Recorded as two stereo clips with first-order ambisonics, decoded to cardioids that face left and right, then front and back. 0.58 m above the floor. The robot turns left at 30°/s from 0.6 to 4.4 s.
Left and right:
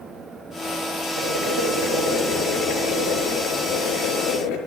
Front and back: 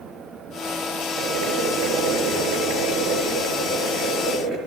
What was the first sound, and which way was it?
Boiling, 145° right.